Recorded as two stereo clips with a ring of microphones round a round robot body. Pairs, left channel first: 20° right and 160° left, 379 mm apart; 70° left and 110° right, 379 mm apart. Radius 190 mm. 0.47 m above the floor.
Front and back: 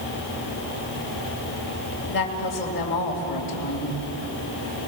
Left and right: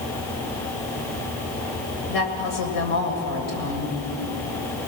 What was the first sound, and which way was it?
A woman speaking, 35° left.